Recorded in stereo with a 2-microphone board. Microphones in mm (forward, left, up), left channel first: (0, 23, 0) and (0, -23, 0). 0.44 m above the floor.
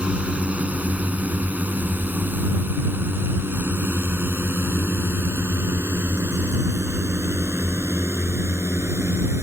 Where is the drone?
25° right (ahead or behind); by 9.4 s 75° right (ahead or behind).